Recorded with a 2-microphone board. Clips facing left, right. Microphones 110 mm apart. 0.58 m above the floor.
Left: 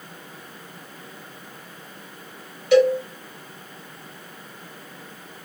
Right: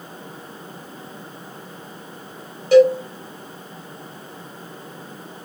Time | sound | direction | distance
2.7 | a cowbell | 35° right (ahead or behind) | 1.9 m